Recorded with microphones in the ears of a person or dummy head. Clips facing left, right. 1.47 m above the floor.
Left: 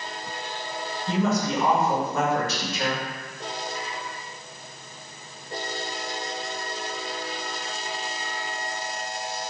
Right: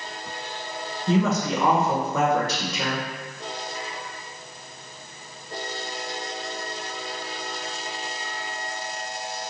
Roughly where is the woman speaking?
Right.